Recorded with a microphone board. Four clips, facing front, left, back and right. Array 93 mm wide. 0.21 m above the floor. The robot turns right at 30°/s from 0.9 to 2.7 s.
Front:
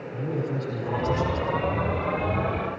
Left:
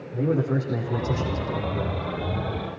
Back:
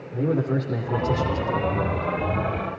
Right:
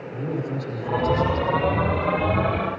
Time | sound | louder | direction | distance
0.1 | a man speaking | left 5 dB, back 6 dB | 160° left | 9 m